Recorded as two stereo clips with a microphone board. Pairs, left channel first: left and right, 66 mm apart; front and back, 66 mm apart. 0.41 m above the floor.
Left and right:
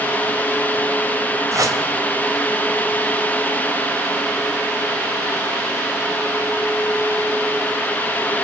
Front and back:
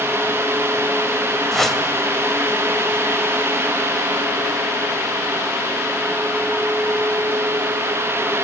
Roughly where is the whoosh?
Right.